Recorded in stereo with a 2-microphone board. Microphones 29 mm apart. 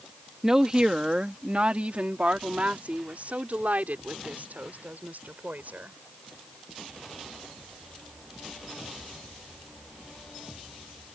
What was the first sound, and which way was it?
A woman speaking, 20° right (ahead or behind).